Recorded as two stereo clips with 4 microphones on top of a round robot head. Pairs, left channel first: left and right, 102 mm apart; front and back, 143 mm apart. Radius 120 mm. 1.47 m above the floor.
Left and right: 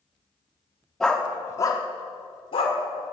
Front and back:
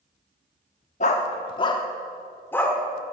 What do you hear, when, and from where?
1.0 s a dog barking: 5° left, 1.2 m; by 2.8 s 75° left, 2 m